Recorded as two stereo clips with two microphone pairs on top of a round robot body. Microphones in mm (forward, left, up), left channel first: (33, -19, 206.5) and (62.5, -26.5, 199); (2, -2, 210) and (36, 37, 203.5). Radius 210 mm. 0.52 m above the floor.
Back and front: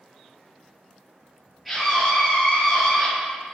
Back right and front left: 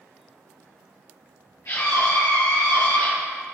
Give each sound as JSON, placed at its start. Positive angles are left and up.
{"t": 1.6, "sound": "a scream", "azimuth_deg": -105, "distance_m": 3.5}